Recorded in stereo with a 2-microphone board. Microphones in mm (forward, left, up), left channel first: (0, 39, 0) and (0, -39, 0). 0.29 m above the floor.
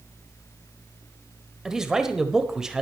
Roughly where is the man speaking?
Centre.